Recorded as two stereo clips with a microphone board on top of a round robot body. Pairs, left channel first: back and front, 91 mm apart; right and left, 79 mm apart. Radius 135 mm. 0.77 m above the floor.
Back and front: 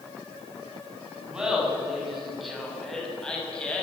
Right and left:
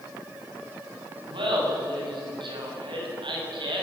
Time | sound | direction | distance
1.3 | laughter | 80° left | 7.5 m